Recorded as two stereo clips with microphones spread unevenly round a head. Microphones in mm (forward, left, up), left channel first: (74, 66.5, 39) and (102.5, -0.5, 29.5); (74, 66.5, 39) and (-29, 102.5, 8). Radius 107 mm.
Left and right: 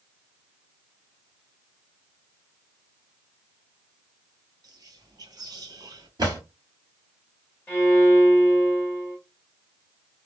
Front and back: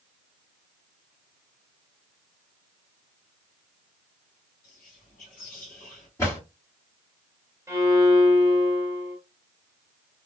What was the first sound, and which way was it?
Whispering, 35° right.